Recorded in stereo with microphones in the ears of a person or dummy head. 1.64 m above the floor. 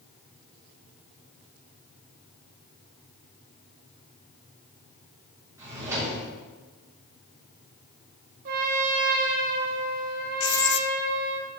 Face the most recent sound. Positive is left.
turn(degrees=60)  # may be behind; listen again after turning